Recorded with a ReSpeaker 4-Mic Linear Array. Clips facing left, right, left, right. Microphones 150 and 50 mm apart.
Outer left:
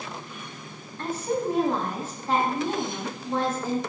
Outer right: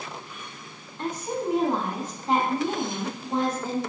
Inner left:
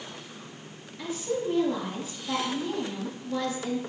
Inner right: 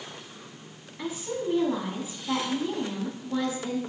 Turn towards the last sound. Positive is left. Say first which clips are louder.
# outer left 2 dB, inner left 2 dB
turn(degrees=-20)  # may be behind; listen again after turning